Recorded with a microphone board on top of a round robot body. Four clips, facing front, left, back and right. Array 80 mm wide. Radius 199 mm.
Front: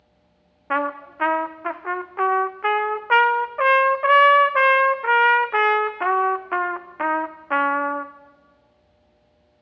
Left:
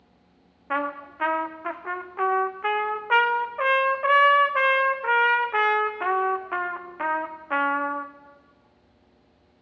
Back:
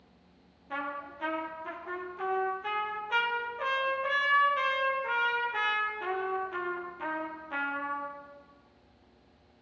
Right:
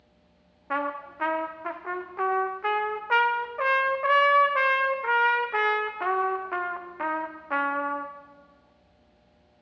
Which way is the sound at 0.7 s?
5° left.